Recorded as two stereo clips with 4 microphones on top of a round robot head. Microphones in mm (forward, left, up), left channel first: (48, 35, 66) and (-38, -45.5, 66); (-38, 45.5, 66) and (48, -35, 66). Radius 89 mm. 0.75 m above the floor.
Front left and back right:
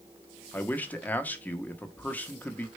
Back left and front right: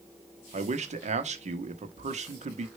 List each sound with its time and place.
0.5 s a man speaking: 35° right, 1.2 m